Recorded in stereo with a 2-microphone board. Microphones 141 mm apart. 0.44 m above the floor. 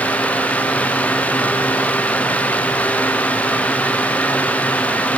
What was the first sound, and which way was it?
Only background noise.